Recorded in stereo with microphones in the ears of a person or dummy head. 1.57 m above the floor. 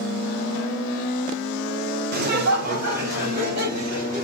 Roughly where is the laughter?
Right.